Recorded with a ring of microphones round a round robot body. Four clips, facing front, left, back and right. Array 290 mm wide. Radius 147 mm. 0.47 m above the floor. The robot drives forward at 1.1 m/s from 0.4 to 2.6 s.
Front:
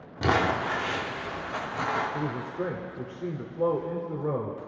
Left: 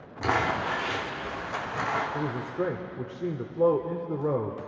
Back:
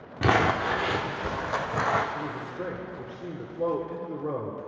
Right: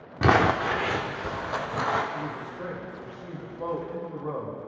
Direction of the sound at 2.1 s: 60° left.